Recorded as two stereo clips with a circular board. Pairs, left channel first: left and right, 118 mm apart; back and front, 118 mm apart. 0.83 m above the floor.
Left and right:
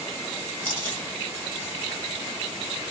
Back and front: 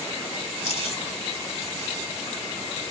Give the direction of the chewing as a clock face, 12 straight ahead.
7 o'clock.